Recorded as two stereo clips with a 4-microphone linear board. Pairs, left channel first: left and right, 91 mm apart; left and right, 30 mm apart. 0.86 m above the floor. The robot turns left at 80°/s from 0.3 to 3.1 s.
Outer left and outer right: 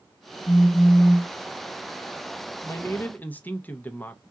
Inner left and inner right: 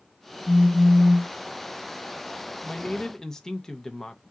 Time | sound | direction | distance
0.5 | a phone buzzing | 50° left | 1.8 m
2.6 | a man speaking | 30° left (ahead or behind) | 0.7 m